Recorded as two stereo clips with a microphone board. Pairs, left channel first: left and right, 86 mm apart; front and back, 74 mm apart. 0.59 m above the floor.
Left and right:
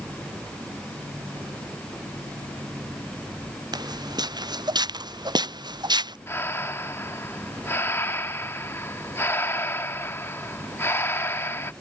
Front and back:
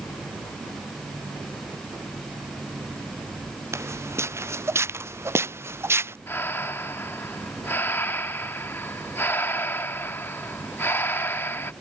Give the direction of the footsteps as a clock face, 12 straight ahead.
4 o'clock.